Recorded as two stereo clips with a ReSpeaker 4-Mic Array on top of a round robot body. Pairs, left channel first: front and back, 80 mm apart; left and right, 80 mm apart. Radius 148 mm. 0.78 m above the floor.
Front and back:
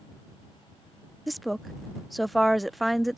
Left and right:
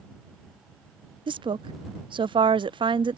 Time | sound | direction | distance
1.3 | a woman speaking | 90° right | ?